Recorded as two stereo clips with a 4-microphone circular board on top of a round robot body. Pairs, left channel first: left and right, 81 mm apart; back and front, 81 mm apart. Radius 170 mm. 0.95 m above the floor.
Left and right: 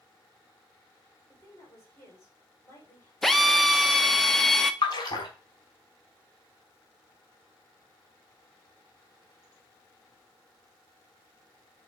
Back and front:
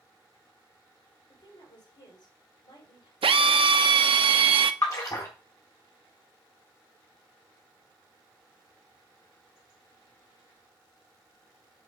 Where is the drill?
5° left, 0.6 m.